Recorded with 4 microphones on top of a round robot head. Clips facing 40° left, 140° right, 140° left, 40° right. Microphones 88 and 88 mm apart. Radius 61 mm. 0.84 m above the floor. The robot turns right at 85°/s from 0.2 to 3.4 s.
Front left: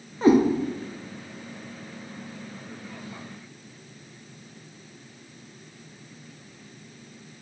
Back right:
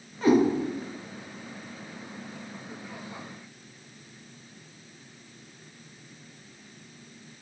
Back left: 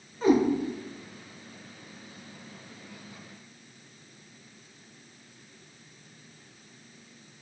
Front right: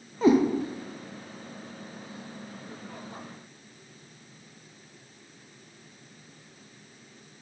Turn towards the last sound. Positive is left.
turn(degrees=-120)